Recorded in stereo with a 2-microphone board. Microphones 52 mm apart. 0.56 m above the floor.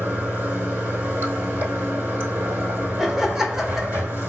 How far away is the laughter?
About 1.2 m.